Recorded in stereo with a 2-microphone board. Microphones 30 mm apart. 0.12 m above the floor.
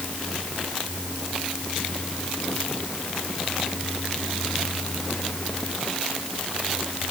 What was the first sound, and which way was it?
Only background noise.